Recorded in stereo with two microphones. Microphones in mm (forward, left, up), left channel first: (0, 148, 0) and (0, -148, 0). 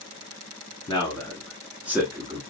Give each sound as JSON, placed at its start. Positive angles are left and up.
{"t": 0.9, "sound": "a man speaking", "side_deg": 15, "distance_m": 1.1}